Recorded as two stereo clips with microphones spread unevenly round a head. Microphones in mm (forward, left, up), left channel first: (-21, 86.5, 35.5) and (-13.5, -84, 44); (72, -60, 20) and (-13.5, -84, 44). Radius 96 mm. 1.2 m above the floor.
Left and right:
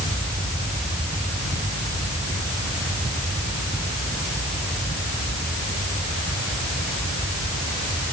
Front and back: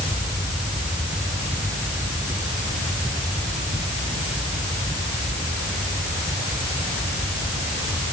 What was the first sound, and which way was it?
Only background noise.